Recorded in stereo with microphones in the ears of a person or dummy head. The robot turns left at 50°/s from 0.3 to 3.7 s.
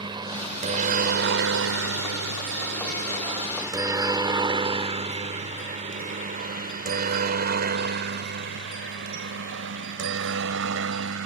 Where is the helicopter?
25° right (ahead or behind); by 11.3 s 70° right (ahead or behind).